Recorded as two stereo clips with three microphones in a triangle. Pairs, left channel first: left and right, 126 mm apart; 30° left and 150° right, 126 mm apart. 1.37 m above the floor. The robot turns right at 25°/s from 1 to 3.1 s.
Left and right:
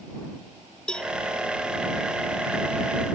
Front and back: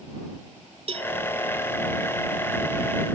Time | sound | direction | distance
0.9 | a cowbell | 170° left | ?